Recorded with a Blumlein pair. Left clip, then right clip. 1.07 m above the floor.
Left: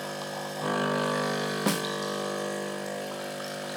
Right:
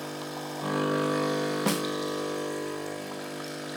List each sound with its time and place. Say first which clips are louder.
0.0 s a machine running: left 2 dB; 5° left, 4 m
1.7 s a snare drum: left 2 dB; straight ahead, 0.5 m